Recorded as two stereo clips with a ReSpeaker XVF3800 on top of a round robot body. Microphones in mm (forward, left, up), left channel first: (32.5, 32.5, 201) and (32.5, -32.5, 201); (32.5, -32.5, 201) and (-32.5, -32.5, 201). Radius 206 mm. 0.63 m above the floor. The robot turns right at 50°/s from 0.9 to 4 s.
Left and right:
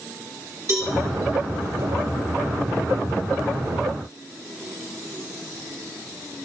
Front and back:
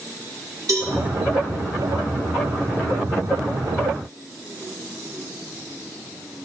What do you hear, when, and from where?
0.7 s a cowbell: 145° right, 2 m; by 0.9 s 140° right, 2 m